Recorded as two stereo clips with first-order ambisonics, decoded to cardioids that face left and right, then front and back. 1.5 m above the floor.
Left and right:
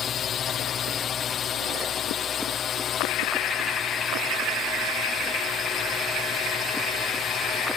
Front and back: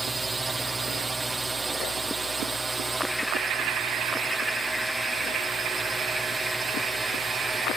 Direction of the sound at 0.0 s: 115° left.